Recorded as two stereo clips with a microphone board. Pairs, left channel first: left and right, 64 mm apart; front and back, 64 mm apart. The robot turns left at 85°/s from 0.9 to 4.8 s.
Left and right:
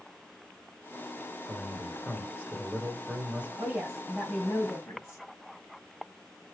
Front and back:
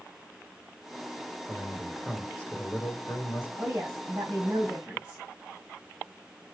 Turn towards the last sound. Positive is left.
turn(degrees=115)